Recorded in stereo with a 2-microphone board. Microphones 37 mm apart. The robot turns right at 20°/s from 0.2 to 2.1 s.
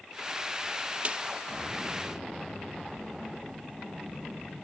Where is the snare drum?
35° right (ahead or behind), 0.8 m.